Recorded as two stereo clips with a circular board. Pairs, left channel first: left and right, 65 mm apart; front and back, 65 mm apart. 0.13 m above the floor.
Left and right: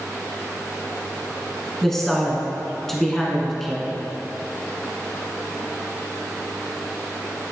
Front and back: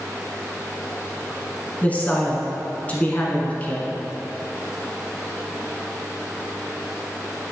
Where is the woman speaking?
15° left, 1.2 m.